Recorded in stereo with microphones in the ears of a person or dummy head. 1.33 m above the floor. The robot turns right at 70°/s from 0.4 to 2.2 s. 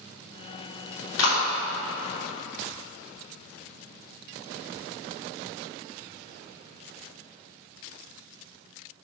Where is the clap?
85° left, 3 m; by 1.4 s 75° left (ahead or behind), 3 m.